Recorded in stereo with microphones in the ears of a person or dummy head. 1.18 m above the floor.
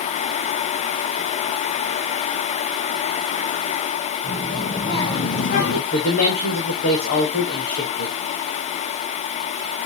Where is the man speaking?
50° left (ahead or behind), 2.5 m.